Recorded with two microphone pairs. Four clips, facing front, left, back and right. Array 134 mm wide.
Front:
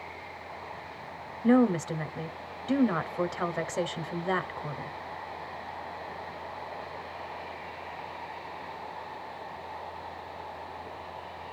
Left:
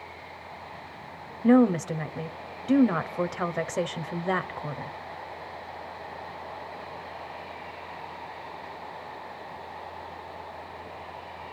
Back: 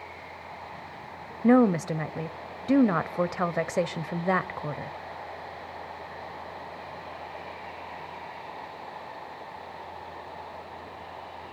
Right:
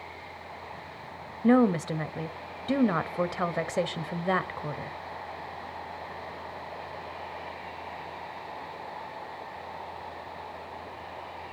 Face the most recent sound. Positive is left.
turn(degrees=-170)